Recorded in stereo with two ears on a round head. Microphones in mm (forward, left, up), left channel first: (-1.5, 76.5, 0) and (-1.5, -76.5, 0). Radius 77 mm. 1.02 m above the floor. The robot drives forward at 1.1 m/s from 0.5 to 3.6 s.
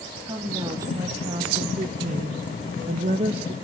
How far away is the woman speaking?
About 2.5 m.